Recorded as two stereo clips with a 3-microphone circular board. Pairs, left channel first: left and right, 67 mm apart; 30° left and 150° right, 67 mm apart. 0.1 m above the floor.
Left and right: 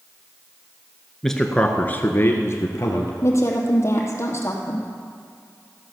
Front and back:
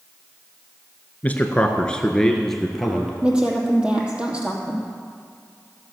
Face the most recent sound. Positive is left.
turn(degrees=135)